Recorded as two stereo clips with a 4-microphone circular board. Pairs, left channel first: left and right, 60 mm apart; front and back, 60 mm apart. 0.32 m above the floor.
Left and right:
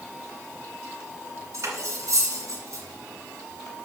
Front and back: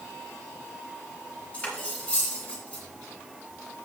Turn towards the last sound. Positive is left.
turn(degrees=-65)